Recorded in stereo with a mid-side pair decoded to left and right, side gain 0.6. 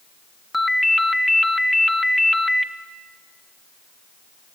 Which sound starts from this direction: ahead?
A ringtone, at 0.5 s.